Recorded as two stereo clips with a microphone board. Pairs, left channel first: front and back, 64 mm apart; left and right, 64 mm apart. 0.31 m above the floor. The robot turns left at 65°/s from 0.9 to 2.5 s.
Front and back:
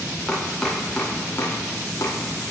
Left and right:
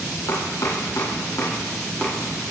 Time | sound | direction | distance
0.3 | chopping | 90° left | 3.5 m